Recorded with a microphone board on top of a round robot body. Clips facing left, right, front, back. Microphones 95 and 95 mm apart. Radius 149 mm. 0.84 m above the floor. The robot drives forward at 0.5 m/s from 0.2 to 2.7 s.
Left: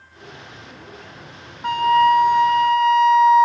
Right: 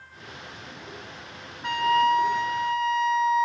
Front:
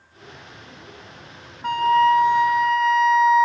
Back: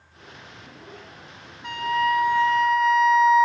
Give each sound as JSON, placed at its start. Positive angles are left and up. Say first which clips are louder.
{"t": 1.6, "sound": "a flute", "louder": "left 6 dB, front 7 dB", "azimuth_deg": 40, "distance_m": 0.8}